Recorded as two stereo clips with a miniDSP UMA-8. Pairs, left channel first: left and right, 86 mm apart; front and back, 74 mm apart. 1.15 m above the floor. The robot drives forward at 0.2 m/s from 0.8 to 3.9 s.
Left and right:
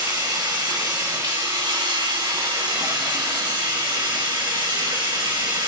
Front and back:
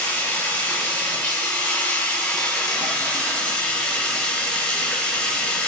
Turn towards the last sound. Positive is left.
turn(degrees=-80)